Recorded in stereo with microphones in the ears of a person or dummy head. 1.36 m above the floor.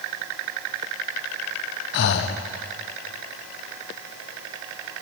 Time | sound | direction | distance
1.9 | breathing | 60° left (ahead or behind) | 0.7 m